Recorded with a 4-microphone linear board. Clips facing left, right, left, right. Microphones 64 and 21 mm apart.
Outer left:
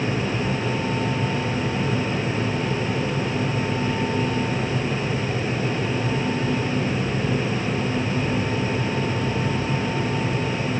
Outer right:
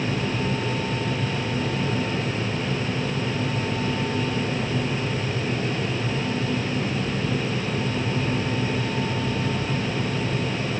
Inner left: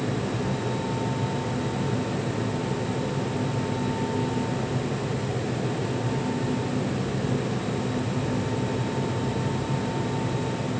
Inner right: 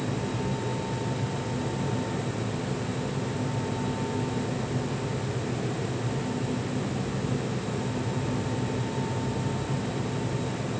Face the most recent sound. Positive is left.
No sound to turn to.